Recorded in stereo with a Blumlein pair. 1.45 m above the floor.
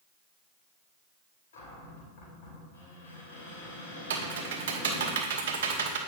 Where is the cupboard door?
60° left, 3 m.